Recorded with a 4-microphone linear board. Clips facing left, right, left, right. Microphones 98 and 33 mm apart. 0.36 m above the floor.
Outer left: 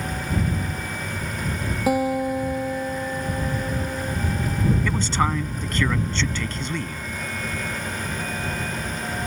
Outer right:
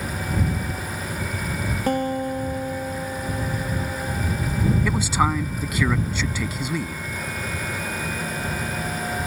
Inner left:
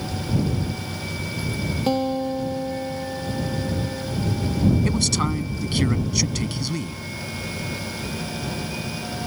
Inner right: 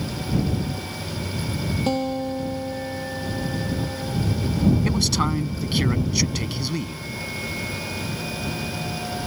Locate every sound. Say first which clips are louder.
1.9 s a guitar: outer left 2 dB, inner left 3 dB; 5° left (ahead or behind)
4.8 s a man speaking: outer right 1 dB, even; 10° right (ahead or behind)